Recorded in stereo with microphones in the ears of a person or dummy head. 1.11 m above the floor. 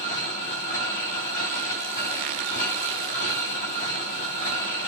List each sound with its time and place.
0.0 s a machine running: 45° left (ahead or behind), 2.5 m